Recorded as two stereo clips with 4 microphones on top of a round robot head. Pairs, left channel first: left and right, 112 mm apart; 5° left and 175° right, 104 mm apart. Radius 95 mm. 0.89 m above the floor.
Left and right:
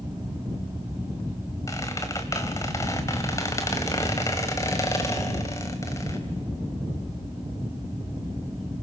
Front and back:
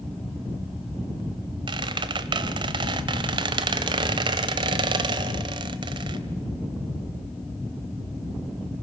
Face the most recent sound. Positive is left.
turn(degrees=160)